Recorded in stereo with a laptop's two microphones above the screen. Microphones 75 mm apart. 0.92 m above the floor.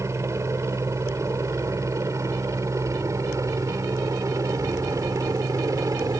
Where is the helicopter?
40° right (ahead or behind); by 6.2 s 50° right (ahead or behind).